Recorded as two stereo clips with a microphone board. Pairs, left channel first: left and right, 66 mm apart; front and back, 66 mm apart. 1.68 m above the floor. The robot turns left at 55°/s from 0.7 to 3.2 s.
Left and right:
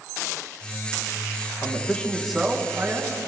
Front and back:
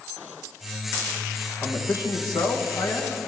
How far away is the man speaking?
About 1.4 m.